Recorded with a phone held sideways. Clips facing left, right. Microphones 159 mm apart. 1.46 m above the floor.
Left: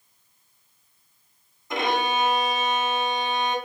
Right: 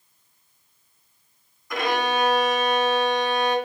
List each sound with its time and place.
1.7 s a violin: 25° left (ahead or behind), 1.0 m